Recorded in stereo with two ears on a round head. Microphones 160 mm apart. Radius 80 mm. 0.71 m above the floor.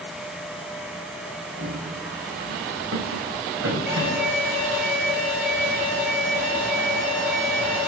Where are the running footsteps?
65° right (ahead or behind), 2.0 m; by 4.4 s 80° right, 4 m.